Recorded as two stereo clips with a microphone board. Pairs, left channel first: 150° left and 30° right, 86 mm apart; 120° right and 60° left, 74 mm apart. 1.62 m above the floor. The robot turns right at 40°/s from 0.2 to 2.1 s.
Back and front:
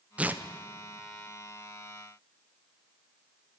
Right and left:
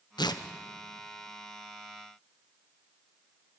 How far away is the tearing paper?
About 1.1 m.